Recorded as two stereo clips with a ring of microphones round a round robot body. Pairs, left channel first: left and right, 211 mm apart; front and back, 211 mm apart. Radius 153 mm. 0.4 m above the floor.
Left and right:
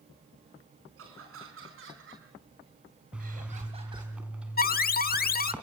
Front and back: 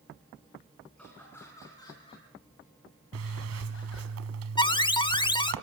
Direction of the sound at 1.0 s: 85° right.